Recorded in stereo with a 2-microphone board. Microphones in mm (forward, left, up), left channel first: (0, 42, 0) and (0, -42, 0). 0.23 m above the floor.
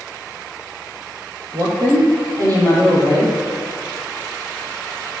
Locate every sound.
1.5 s a woman speaking: 50° right (ahead or behind), 6.5 m